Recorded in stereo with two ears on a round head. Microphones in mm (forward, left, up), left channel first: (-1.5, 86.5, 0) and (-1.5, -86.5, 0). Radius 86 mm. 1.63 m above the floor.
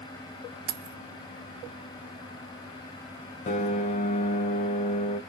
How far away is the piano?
About 0.5 m.